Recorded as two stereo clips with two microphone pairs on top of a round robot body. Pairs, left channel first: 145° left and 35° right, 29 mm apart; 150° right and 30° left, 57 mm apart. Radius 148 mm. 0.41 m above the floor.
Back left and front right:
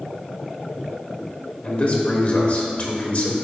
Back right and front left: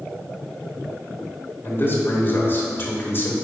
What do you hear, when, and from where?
1.6 s a man speaking: 165° left, 1.2 m